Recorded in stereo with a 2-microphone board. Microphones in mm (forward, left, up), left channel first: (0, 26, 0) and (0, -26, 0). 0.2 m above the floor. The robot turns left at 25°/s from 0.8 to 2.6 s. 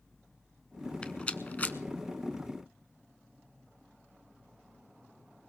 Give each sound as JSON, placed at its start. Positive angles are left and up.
{"t": 1.0, "sound": "a rattle", "side_deg": 20, "distance_m": 0.6}